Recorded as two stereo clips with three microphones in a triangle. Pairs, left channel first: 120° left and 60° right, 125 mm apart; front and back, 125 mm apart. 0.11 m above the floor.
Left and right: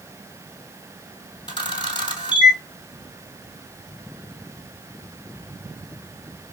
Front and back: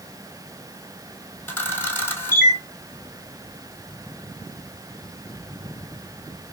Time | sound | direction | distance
1.5 | a camera shutter | 70° left | 1.1 m